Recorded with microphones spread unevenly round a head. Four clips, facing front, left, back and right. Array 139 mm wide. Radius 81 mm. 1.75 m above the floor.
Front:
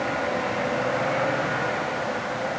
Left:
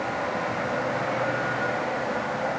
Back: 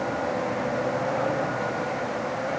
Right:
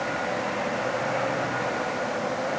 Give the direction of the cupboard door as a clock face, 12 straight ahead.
No cupboard door in this recording.